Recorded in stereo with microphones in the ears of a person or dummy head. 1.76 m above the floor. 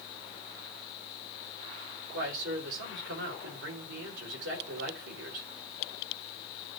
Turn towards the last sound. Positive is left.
turn(degrees=-70)  # may be behind; listen again after turning